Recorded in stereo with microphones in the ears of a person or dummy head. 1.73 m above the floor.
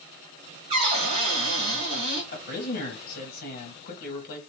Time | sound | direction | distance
0.7 | a cupboard door | 40° right (ahead or behind) | 1.6 m
2.3 | a man speaking | 60° left (ahead or behind) | 1.6 m